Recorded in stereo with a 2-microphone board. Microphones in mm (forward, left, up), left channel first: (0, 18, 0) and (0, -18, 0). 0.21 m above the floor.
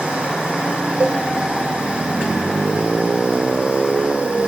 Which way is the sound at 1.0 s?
65° right (ahead or behind).